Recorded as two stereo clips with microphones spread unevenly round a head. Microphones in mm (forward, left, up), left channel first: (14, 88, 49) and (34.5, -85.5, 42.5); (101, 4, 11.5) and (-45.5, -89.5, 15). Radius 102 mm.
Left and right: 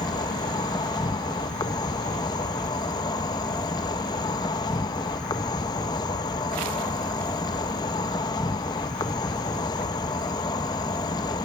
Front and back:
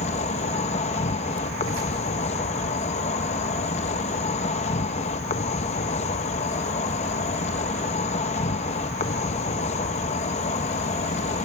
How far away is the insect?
About 0.7 m.